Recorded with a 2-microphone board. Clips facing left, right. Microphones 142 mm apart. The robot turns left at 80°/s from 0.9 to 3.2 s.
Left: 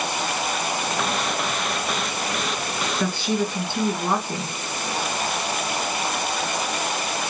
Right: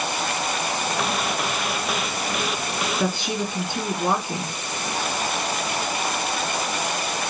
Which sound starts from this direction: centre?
A woman speaking, at 3.0 s.